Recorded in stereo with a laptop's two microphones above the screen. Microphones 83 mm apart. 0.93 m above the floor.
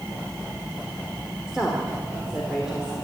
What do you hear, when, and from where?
1.5 s a woman speaking: 5° right (ahead or behind), 2.5 m